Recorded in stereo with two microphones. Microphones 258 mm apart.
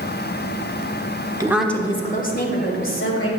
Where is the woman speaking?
15° right (ahead or behind), 1.3 m; by 3.3 s 55° left (ahead or behind), 3 m.